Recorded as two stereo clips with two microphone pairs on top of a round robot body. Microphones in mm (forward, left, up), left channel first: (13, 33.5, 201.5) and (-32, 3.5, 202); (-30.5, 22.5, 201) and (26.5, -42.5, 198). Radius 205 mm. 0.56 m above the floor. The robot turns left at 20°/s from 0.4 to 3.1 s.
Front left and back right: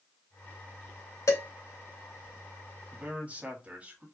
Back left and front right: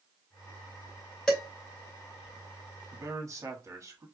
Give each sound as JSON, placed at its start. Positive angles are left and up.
{"t": 1.3, "sound": "dishes clattering", "azimuth_deg": 50, "distance_m": 2.5}
{"t": 2.9, "sound": "a man speaking", "azimuth_deg": -85, "distance_m": 1.6}